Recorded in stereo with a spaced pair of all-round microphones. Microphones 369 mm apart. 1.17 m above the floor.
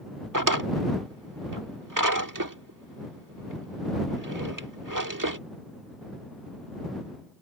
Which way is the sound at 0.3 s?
60° right (ahead or behind).